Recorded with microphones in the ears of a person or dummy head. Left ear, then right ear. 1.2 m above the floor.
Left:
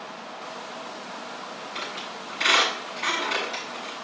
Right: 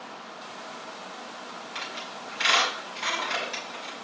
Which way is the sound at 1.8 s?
65° right (ahead or behind).